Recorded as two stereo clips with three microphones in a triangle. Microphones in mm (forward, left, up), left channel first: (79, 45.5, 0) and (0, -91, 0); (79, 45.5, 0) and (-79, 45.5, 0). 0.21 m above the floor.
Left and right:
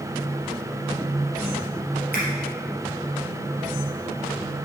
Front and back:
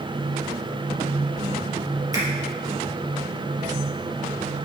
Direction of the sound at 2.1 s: 110° right.